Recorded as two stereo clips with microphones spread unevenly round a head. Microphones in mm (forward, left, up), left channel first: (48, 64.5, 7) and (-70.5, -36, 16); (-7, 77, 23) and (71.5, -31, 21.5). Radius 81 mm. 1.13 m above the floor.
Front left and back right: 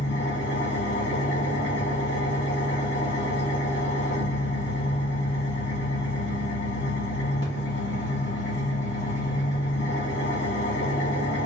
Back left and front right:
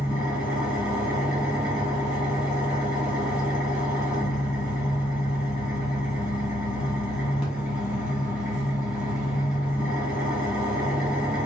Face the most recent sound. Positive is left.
turn(degrees=30)